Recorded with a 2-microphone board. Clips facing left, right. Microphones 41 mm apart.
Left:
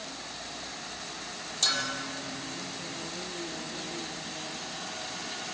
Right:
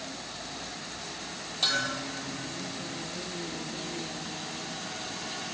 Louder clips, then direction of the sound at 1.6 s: Right 2 dB; 10° right (ahead or behind).